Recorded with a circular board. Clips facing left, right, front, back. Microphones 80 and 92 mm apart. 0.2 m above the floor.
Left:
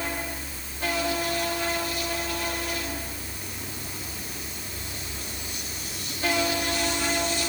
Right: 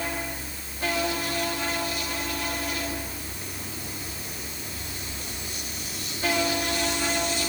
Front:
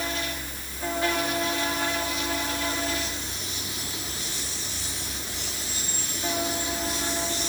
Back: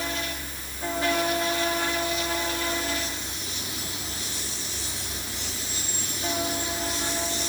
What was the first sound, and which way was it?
Only background noise.